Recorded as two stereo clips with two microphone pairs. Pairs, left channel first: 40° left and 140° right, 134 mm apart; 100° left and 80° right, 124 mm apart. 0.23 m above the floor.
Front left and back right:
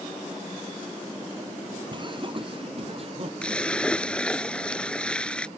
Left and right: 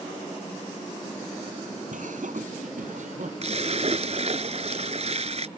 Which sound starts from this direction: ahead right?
A splash, at 3.4 s.